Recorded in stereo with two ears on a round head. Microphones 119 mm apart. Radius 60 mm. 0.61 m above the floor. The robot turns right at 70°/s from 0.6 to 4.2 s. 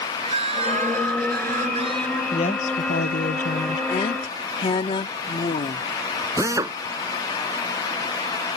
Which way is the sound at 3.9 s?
40° left (ahead or behind).